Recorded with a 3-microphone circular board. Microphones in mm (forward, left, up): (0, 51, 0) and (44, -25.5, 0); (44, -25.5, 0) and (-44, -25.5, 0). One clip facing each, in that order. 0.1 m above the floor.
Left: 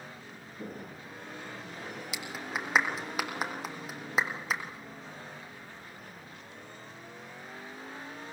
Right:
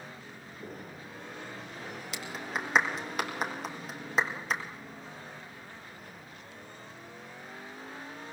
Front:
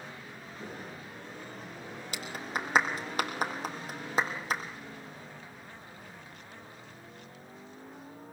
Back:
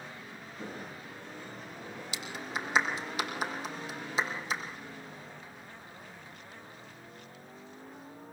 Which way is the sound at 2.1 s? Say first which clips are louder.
Right 1 dB, front 2 dB; 35° left.